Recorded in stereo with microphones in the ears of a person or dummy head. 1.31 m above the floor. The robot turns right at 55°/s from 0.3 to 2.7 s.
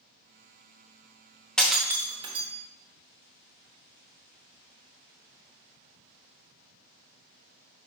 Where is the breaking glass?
Centre (ahead or behind), 0.9 m; by 2.5 s 40° right (ahead or behind), 0.9 m.